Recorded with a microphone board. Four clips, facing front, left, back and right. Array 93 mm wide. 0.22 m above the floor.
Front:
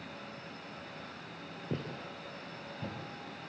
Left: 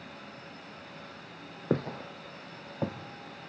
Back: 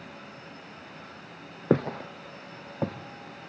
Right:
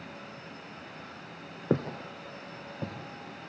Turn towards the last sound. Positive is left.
turn(degrees=160)